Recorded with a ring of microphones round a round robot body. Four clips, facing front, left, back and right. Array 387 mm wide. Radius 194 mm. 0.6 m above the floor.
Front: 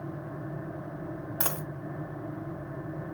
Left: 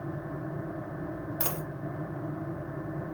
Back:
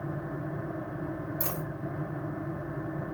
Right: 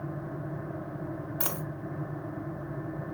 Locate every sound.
1.4 s a dropped coin: 10° right, 0.8 m